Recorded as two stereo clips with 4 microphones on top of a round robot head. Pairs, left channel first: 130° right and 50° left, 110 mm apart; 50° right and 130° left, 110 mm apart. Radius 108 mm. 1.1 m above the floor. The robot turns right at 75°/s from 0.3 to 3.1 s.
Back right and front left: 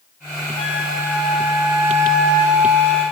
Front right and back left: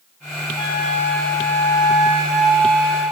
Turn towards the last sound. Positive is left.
turn(degrees=95)